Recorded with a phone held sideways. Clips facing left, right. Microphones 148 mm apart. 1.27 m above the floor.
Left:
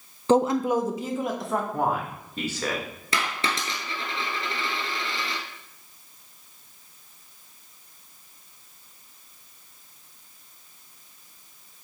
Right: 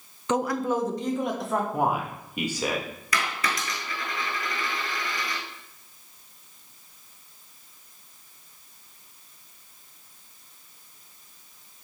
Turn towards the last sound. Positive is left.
turn(degrees=30)  # may be behind; listen again after turning